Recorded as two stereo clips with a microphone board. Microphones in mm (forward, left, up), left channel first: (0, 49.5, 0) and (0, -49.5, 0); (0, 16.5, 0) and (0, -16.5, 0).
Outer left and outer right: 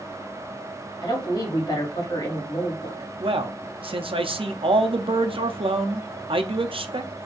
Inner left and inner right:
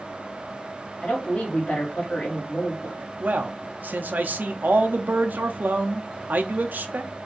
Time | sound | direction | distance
1.0 | a woman speaking | 45° left (ahead or behind) | 1.9 m
3.2 | a man speaking | 65° right (ahead or behind) | 0.6 m